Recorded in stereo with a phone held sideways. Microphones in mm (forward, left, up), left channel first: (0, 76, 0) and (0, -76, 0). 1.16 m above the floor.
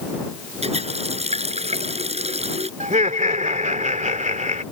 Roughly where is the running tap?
Right.